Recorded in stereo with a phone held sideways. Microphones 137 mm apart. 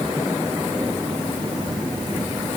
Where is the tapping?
I don't hear tapping.